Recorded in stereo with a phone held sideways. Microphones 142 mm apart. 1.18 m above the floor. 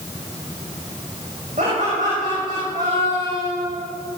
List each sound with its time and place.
1.6 s laughter: 60° right (ahead or behind), 5.5 m